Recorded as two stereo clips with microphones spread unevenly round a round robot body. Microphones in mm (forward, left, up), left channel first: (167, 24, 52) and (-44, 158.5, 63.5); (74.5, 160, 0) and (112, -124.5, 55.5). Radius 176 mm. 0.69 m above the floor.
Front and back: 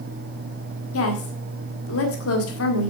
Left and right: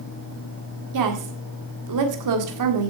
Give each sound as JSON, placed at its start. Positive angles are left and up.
{"t": 0.9, "sound": "a woman speaking", "azimuth_deg": -65, "distance_m": 1.7}